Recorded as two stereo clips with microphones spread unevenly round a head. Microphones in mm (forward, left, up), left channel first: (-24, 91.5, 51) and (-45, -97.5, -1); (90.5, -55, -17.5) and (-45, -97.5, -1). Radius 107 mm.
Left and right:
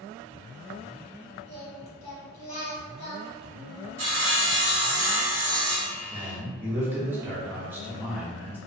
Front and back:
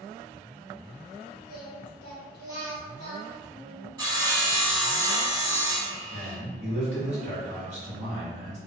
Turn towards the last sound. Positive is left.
turn(degrees=-150)